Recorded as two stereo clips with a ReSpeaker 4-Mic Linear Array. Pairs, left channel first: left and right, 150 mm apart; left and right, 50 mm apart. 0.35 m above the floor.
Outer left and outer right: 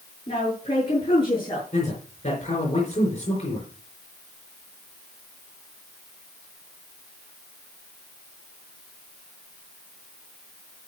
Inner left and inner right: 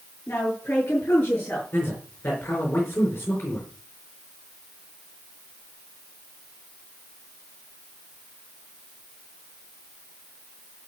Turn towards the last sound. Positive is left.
turn(degrees=50)  # may be behind; listen again after turning